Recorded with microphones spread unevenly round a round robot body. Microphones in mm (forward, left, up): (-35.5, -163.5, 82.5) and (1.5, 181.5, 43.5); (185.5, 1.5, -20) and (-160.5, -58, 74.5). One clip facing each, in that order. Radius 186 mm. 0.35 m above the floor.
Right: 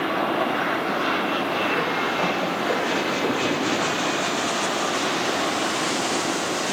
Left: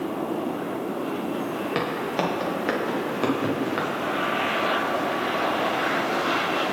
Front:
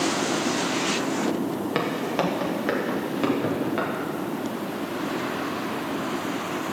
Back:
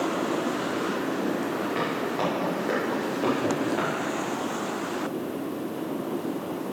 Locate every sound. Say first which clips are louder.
1.8 s footsteps: right 1 dB, front 2 dB; 40° left, 3.5 m; by 3.9 s 65° left, 4.5 m